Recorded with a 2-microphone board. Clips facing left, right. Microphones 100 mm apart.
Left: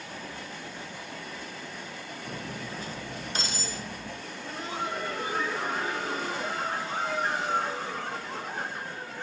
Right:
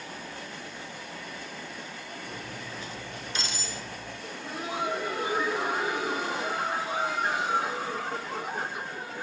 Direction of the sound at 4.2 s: 10° right (ahead or behind).